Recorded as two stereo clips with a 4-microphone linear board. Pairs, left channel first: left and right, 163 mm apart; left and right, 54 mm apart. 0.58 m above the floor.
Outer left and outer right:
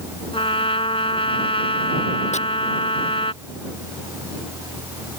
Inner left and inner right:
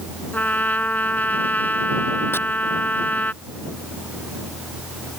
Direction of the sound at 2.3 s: 45° left (ahead or behind).